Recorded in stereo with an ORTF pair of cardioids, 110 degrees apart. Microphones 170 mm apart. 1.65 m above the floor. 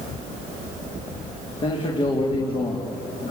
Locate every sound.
1.6 s a man speaking: 30° left, 4.5 m